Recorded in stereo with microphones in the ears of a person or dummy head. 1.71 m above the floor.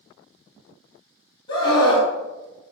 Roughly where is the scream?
Left.